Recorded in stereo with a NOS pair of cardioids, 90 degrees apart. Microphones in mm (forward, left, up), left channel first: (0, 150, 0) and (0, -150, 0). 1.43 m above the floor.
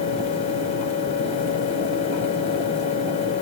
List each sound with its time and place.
0.0 s a fan: 65° left, 1.2 m